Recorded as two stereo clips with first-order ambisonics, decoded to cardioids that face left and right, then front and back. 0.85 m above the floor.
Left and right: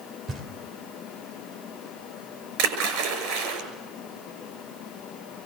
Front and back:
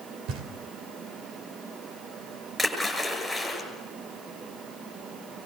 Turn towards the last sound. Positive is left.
turn(degrees=-100)